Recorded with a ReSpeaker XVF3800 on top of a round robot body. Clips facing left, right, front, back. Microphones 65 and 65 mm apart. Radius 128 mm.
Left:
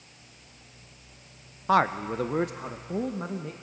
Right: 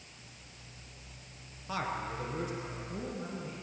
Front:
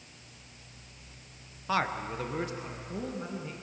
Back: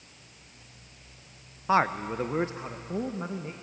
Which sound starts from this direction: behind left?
A man speaking, at 1.7 s.